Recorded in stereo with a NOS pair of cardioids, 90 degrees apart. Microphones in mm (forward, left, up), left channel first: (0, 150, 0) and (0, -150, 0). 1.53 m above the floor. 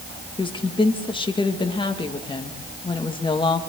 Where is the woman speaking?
15° left, 2.5 m.